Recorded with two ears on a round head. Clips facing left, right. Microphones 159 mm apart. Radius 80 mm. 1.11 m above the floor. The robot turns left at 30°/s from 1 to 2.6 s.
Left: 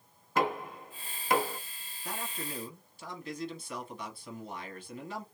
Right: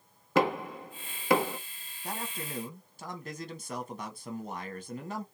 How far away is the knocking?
About 0.8 m.